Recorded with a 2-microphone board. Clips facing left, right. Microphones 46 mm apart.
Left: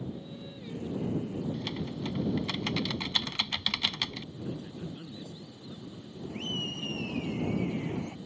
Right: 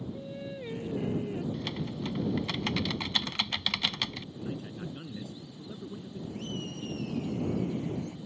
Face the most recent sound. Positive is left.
turn(degrees=50)  # may be behind; listen again after turning